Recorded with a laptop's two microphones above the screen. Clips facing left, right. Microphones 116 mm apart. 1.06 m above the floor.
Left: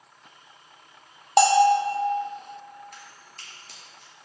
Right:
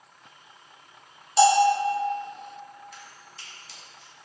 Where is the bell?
65° left (ahead or behind), 0.7 m.